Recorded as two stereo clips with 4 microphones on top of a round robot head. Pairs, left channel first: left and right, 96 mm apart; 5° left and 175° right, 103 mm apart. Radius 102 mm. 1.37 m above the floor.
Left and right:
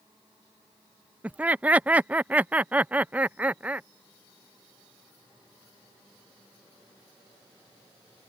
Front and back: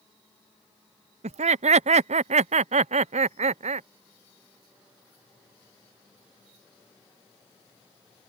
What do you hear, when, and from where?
1.2 s laughter: 165° right